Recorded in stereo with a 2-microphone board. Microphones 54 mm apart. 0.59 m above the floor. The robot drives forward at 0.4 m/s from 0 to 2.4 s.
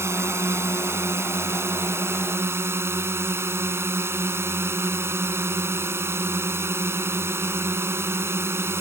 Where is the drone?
55° right (ahead or behind); by 8.8 s 50° right (ahead or behind).